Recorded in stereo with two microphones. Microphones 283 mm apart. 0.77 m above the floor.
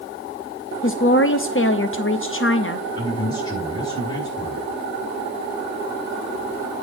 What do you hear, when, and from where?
0.8 s a woman speaking: 45° left (ahead or behind), 0.6 m
3.0 s a man speaking: 15° left (ahead or behind), 6.5 m